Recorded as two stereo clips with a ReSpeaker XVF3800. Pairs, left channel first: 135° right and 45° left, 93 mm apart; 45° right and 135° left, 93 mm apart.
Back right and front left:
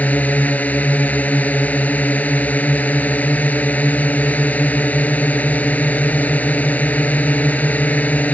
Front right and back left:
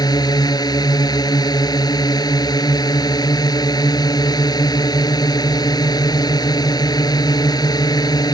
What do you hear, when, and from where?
0.0 s a drone: 65° right